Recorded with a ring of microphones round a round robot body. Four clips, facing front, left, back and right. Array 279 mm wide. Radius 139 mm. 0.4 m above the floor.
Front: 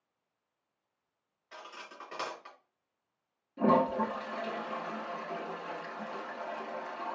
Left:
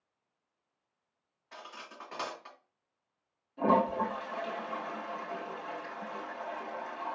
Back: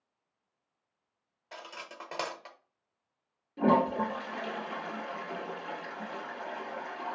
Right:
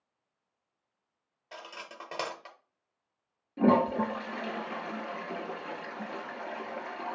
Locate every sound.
1.5 s cutlery clinking: 130° right, 0.8 m
3.6 s a toilet flushing: 95° right, 1.6 m